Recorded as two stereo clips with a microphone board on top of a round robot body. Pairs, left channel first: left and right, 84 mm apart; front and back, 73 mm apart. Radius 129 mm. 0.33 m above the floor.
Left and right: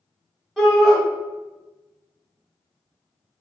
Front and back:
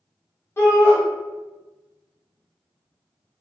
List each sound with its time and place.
0.6 s a shout: 5° left, 1.1 m